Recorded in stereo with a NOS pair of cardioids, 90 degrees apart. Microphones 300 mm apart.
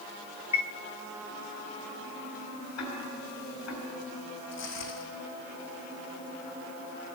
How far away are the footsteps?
About 3.5 m.